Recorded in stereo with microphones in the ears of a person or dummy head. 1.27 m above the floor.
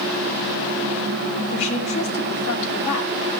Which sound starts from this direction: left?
A woman speaking, at 1.5 s.